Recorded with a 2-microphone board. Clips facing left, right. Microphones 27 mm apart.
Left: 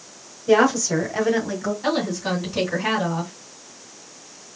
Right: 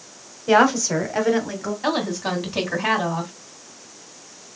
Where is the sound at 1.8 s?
25° right (ahead or behind), 2 m.